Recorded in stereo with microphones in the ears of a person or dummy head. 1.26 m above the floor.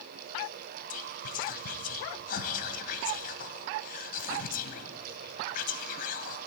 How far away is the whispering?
About 0.9 m.